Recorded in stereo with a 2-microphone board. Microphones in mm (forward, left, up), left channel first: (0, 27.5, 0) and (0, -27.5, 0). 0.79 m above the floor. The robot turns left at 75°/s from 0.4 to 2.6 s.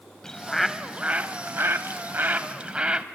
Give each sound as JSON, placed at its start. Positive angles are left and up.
{"t": 0.2, "sound": "a bird", "azimuth_deg": 15, "distance_m": 0.7}